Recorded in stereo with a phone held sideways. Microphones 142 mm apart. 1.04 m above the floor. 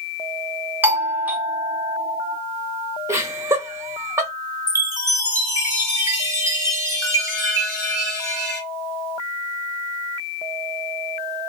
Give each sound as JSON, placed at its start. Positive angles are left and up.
{"t": 0.8, "sound": "a doorbell", "side_deg": -10, "distance_m": 0.7}
{"t": 3.1, "sound": "laughter", "side_deg": -15, "distance_m": 0.7}
{"t": 4.7, "sound": "a chime", "side_deg": -25, "distance_m": 0.9}